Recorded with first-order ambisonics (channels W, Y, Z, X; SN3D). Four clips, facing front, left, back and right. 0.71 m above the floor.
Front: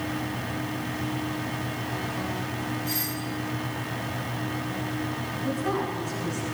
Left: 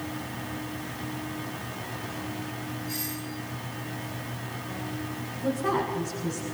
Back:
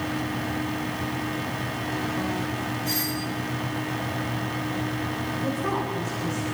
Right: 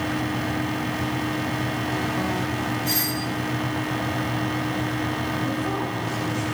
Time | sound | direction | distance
2.9 | a doorbell | 120° right | 8.5 m
5.4 | a woman speaking | 130° left | 6.5 m